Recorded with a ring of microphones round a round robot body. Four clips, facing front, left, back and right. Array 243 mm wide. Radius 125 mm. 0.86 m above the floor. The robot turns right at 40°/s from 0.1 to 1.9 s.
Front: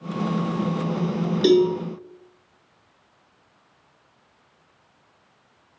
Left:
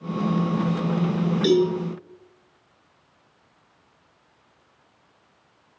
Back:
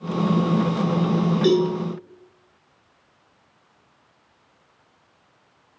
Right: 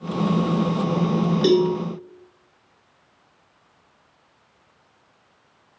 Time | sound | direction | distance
1.4 | a cowbell | 45° right | 7 m